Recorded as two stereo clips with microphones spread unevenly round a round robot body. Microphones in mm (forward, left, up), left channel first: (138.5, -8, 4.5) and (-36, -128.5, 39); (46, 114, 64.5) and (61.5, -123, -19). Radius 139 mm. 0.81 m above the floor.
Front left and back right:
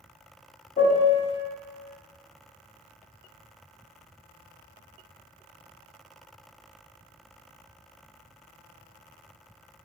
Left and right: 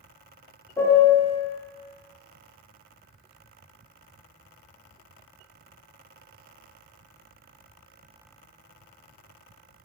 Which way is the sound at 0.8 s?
Straight ahead.